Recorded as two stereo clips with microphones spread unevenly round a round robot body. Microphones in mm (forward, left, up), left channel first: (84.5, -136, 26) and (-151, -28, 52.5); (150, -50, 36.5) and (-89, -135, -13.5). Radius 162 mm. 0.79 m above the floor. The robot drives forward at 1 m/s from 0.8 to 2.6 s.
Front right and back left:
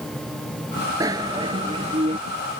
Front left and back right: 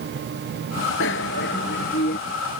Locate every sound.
1.0 s a bicycle bell: 75° left; by 2.2 s 80° left